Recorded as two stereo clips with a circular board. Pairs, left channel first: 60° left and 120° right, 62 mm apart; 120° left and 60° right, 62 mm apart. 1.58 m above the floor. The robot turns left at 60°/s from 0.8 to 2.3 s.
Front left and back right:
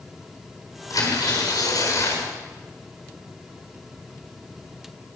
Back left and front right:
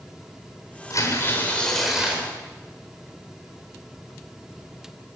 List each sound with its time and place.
0.9 s tearing paper: 85° left, 7 m; by 2.3 s 5° left, 7 m